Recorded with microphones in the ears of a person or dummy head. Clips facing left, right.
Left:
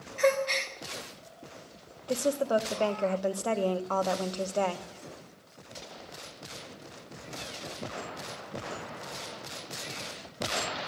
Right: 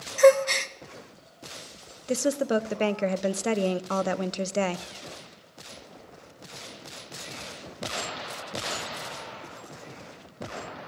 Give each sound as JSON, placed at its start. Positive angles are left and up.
{"t": 0.2, "sound": "a gasp", "side_deg": -55, "distance_m": 0.8}
{"t": 2.1, "sound": "a woman speaking", "side_deg": -20, "distance_m": 0.6}